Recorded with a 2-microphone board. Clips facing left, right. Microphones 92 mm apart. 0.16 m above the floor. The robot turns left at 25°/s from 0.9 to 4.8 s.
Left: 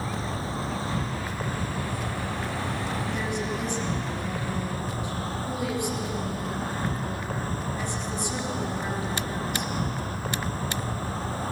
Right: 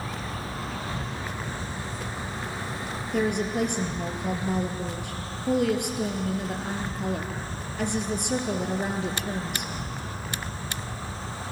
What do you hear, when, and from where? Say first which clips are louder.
0.0 s an insect: left 3 dB; 145° left, 1.9 m; by 11.5 s 50° left, 1.9 m
3.1 s a woman speaking: right 4 dB; 65° right, 3 m; by 9.7 s 105° right, 3 m